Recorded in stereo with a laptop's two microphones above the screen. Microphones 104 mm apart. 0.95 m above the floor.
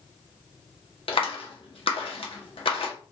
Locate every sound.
1.1 s a clap: 65° left (ahead or behind), 0.7 m